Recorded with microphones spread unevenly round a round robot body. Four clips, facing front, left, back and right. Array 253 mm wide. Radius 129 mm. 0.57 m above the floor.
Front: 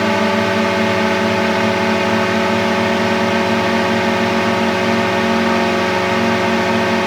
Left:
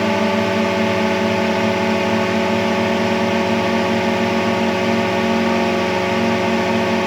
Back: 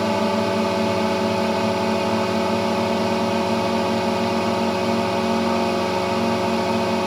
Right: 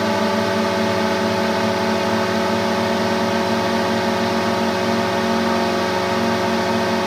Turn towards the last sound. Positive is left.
turn(degrees=25)